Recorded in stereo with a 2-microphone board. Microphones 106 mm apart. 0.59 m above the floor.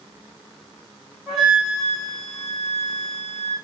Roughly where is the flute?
Centre.